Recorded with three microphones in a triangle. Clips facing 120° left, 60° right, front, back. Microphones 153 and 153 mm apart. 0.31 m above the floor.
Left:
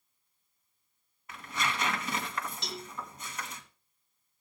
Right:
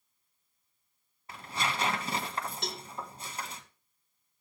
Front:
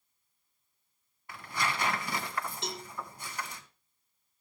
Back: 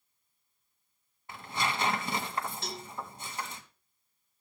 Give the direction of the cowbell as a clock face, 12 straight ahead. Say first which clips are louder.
Right 1 dB, front 1 dB; 2 o'clock.